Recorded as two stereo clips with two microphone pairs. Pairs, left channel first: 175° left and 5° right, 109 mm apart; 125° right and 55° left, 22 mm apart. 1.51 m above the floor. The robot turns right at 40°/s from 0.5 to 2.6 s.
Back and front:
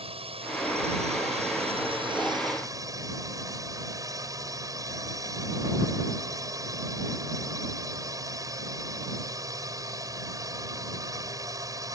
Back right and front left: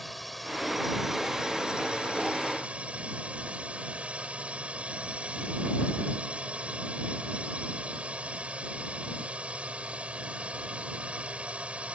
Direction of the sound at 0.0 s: 35° right.